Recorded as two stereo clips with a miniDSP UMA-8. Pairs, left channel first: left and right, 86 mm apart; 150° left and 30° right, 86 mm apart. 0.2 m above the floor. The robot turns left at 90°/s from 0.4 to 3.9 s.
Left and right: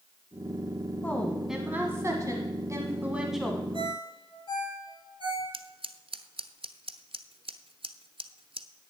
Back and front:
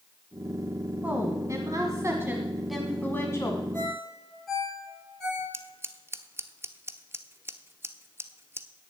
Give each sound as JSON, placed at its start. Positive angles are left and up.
{"t": 1.0, "sound": "a woman speaking", "azimuth_deg": 35, "distance_m": 1.3}
{"t": 3.7, "sound": "a ringtone", "azimuth_deg": 80, "distance_m": 4.0}
{"t": 5.5, "sound": "scissors", "azimuth_deg": -95, "distance_m": 0.7}